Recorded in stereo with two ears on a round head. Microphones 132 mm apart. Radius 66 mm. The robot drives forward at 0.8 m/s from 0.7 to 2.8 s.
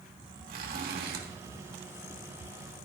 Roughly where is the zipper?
Right.